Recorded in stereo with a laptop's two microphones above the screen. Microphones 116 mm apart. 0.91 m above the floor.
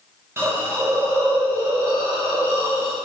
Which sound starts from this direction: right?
A hiss, at 0.4 s.